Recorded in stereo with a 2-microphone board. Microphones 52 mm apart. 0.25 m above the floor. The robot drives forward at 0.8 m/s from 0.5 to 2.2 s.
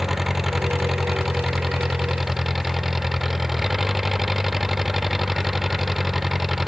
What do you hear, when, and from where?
0.0 s an engine running: 5° right (ahead or behind)